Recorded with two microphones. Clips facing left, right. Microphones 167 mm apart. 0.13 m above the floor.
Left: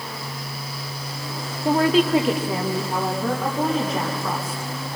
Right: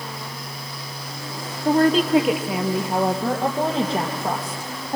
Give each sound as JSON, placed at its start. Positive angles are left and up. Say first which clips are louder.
{"t": 1.6, "sound": "a woman speaking", "louder": "right 1 dB", "side_deg": 10, "distance_m": 2.0}